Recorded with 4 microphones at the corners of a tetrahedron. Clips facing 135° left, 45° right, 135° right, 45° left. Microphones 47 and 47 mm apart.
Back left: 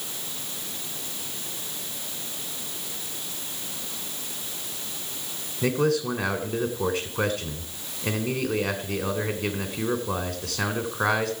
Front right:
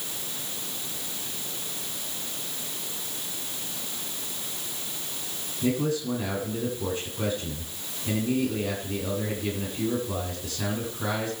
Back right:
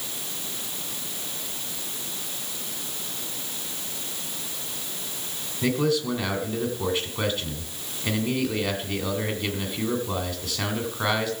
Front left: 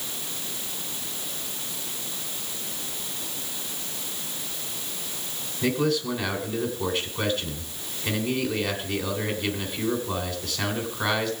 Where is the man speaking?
135° left, 2.5 m.